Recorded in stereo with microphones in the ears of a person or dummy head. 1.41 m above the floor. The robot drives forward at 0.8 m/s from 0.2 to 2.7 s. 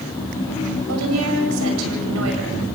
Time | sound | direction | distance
0.9 | a woman speaking | 90° right | 6.5 m